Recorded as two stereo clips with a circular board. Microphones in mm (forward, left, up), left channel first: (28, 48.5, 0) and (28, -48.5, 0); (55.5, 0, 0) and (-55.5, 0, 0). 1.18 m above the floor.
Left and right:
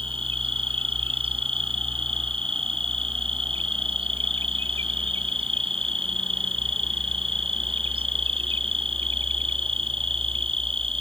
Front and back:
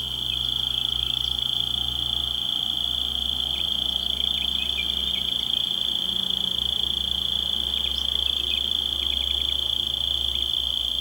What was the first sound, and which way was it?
An insect, 95° right.